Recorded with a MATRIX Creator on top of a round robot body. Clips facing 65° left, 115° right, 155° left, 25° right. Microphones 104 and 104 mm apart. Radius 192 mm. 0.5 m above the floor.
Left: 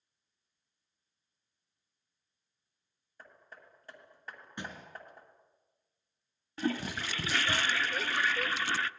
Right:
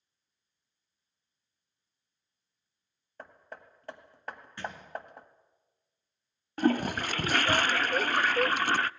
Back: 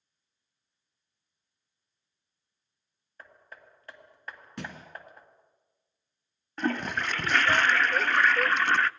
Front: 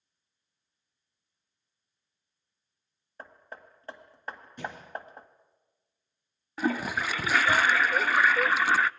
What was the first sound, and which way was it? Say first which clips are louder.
Hammering: right 7 dB, front 5 dB; 85° right.